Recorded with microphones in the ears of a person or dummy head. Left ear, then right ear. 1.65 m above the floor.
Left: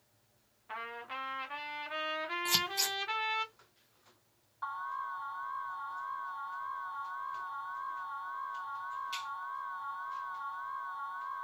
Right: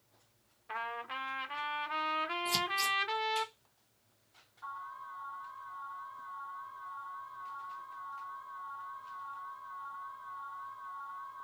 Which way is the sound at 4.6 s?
55° left (ahead or behind).